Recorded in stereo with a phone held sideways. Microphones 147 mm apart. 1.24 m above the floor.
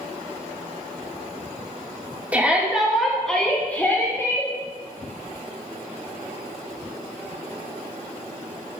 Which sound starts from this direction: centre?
A shout, at 2.3 s.